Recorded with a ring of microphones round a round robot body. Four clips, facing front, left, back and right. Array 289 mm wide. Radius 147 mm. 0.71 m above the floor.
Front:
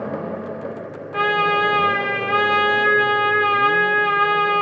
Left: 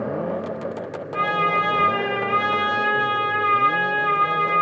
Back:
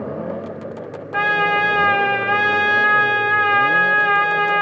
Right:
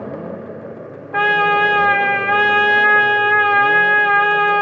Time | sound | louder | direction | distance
1.1 | a trumpet | right 6 dB, even | 100° right | 1.4 m